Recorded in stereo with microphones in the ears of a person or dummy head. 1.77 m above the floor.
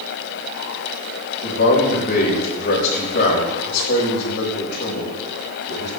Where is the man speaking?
50° left (ahead or behind), 5.5 m.